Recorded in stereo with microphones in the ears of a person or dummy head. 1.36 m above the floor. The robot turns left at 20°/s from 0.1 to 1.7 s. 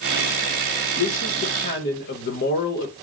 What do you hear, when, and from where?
1.0 s a man speaking: 70° left (ahead or behind), 1.1 m; by 2.9 s 60° left (ahead or behind), 1.1 m